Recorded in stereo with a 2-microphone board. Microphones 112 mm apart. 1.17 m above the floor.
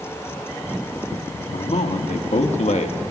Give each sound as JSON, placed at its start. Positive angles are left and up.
{"t": 1.5, "sound": "a man speaking", "side_deg": 70, "distance_m": 2.5}